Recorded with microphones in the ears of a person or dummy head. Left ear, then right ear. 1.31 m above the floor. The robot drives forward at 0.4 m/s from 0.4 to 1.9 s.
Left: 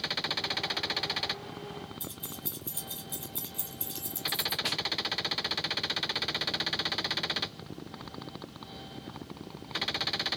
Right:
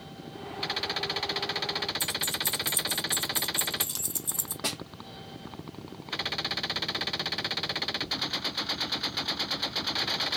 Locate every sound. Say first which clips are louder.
2.0 s keys jangling: right 13 dB; 25° right (ahead or behind), 0.5 m
4.6 s a snare drum: right 3 dB; 65° right (ahead or behind), 1.3 m